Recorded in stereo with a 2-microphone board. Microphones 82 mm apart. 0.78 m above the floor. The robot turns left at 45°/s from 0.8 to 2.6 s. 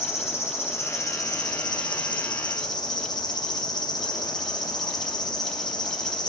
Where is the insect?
145° left, 1.3 m; by 6.3 s 60° left, 1.3 m.